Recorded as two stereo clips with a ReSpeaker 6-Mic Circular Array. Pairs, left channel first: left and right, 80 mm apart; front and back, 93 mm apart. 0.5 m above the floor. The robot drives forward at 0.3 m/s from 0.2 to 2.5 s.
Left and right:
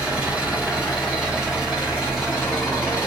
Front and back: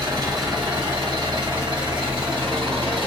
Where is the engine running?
160° right, 1.2 m; by 3.1 s 170° right, 1.8 m.